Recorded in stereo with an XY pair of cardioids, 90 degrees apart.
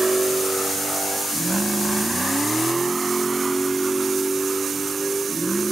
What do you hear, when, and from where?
0.0 s a vehicle: 15° right; by 5.7 s 10° right